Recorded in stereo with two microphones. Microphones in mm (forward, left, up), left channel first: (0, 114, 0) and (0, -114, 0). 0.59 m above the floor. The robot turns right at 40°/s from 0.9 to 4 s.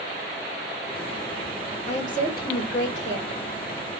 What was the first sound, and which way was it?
A woman speaking, 35° left.